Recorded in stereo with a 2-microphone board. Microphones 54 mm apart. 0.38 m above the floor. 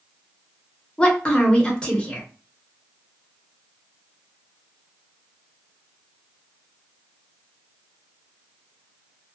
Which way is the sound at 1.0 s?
20° left (ahead or behind).